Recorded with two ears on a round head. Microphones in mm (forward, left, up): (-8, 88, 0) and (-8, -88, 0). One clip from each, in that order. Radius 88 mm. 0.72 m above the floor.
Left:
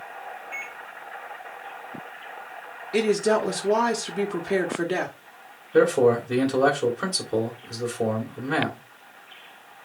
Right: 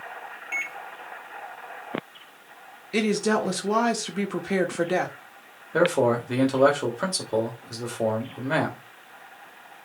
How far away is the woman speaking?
About 1.4 m.